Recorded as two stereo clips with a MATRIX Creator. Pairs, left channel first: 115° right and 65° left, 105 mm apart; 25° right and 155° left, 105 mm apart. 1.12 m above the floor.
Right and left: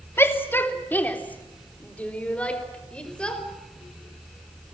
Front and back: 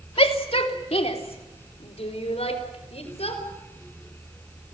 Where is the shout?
45° right, 2.5 m; by 3.4 s 35° right, 5 m.